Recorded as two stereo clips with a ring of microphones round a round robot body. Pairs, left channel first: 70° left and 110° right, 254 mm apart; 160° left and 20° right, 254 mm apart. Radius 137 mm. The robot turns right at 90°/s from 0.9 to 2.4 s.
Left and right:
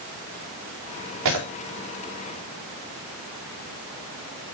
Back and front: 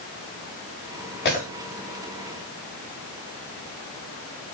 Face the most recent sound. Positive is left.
turn(degrees=-50)